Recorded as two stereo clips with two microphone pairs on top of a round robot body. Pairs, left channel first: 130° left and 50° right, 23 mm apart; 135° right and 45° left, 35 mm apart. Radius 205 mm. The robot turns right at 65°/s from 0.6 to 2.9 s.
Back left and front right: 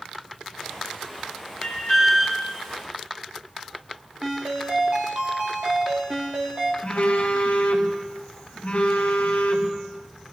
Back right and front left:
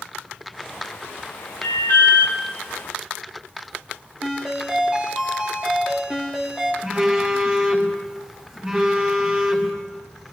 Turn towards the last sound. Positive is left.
turn(degrees=110)